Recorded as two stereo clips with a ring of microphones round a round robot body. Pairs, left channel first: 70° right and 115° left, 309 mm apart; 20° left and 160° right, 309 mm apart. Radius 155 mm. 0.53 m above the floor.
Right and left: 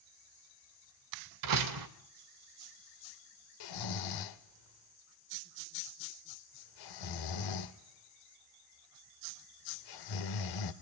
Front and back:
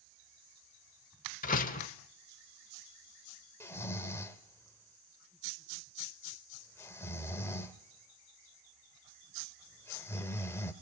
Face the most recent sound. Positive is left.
turn(degrees=-60)